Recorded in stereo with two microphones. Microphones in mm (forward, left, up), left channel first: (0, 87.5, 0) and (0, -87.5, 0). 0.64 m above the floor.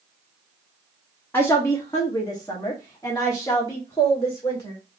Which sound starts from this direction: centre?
A woman speaking, at 1.3 s.